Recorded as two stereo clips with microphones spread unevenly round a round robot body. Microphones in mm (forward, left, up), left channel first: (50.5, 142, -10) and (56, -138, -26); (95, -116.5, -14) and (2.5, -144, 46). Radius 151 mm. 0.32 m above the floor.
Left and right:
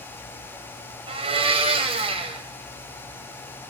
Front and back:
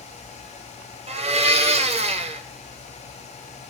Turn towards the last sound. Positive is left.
turn(degrees=-140)